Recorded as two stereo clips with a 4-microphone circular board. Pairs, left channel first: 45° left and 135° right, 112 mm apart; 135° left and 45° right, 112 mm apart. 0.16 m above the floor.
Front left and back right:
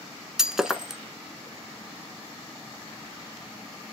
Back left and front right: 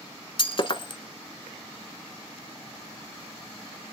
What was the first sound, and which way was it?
Breaking glass, 140° left.